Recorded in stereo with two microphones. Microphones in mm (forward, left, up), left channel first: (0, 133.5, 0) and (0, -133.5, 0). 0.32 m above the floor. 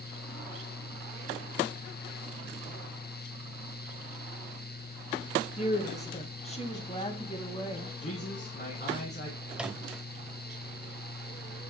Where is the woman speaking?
25° left (ahead or behind), 1.4 m; by 7.9 s 20° left (ahead or behind), 2.5 m.